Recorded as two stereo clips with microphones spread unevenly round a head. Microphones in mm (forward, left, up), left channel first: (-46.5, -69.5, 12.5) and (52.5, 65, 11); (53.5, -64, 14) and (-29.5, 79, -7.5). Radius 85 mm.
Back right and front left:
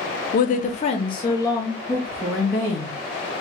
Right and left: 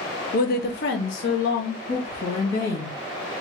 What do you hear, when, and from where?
0.3 s a woman speaking: 100° right, 0.6 m; by 3.0 s 40° right, 1.6 m